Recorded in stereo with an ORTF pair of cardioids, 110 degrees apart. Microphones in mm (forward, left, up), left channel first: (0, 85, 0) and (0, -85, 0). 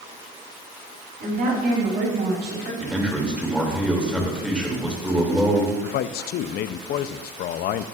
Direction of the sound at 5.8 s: 65° left.